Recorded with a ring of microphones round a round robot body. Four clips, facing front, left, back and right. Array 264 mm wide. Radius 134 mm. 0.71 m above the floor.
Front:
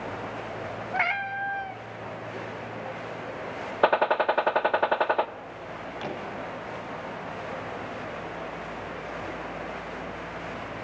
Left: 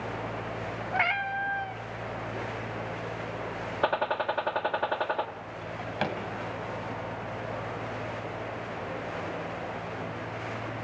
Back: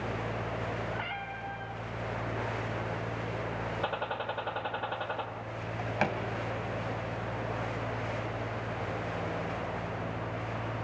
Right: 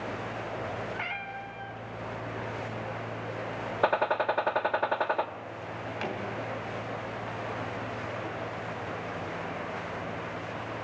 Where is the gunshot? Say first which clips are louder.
Right 2 dB, front 16 dB; 5° right, 0.9 m.